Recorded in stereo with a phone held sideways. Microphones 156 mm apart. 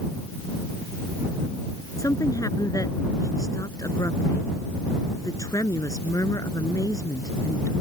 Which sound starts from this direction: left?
A woman speaking, at 2.0 s.